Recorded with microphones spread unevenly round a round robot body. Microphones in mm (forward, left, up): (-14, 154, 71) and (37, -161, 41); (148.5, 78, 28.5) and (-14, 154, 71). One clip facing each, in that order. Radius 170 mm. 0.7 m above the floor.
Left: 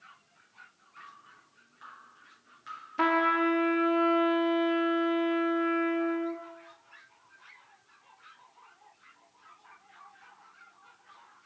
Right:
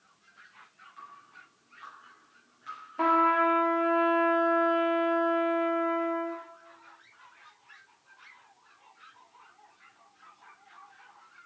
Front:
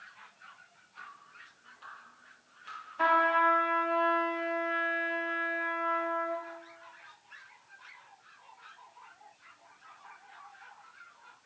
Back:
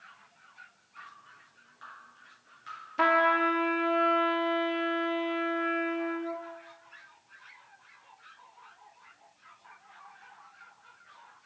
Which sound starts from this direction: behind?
Dripping, at 1.0 s.